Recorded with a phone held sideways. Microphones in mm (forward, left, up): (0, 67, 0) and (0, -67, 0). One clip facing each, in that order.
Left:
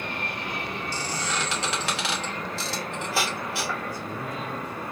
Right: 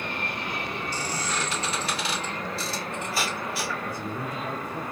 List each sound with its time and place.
0.9 s a squeak: 80° left, 1.1 m
3.9 s a man speaking: 45° right (ahead or behind), 1.0 m